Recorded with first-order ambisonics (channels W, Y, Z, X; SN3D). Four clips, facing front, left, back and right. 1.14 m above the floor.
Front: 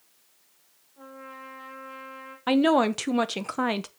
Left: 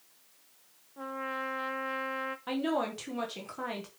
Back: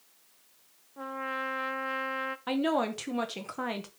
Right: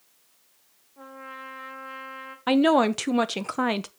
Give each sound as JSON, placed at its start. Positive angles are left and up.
{"t": 1.0, "sound": "a trumpet", "azimuth_deg": 160, "distance_m": 1.0}
{"t": 2.5, "sound": "a woman speaking", "azimuth_deg": -55, "distance_m": 0.8}